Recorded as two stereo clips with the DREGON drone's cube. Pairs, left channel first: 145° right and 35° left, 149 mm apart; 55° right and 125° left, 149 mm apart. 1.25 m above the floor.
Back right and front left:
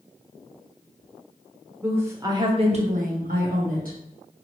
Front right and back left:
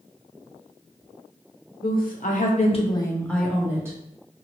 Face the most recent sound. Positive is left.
turn(degrees=55)